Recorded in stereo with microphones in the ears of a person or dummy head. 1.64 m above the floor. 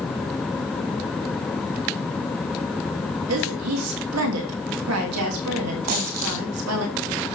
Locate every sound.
3.3 s a woman speaking: 85° right, 3 m
5.9 s a dropped coin: 45° right (ahead or behind), 4.5 m